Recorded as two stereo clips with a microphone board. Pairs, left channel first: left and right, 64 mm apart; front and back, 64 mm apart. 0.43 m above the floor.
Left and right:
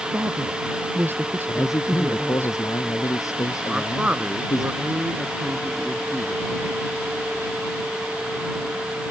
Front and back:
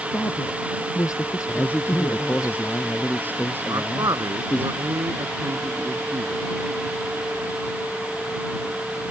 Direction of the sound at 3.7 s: 160° right.